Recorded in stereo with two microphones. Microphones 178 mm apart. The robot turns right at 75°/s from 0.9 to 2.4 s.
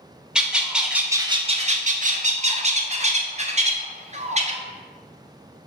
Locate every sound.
0.3 s a bird: 175° right, 0.5 m; by 4.6 s 60° right, 0.5 m